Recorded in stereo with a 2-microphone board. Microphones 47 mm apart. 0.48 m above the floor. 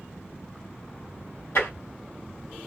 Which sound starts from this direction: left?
Tapping, at 1.6 s.